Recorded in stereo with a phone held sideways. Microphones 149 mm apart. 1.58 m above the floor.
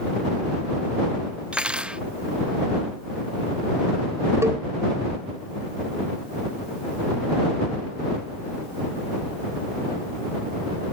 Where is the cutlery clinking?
10° right (ahead or behind).